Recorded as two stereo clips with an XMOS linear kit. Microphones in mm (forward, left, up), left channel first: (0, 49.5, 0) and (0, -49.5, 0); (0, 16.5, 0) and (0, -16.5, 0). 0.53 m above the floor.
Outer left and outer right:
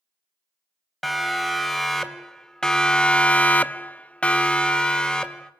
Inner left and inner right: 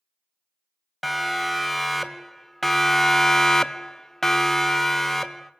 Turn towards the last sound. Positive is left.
turn(degrees=10)  # may be behind; listen again after turning